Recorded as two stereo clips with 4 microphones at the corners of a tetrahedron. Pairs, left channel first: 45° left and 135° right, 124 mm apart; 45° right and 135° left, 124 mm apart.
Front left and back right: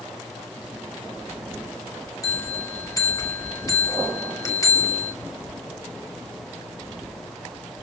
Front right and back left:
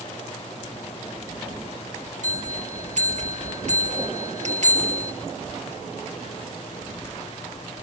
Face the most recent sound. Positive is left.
turn(degrees=110)